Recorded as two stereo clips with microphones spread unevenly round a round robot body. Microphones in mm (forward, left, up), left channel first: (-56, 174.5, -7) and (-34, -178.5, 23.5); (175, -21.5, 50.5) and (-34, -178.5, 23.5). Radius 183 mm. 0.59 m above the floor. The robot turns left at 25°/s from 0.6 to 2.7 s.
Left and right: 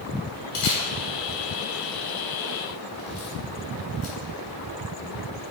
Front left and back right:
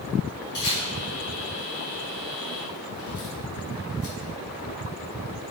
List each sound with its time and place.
0.5 s a camera shutter: 95° left, 2.5 m; by 4.2 s 45° left, 2.5 m